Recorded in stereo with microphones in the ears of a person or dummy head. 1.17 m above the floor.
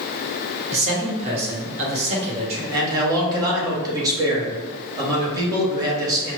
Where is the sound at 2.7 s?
20° right (ahead or behind), 1.4 m.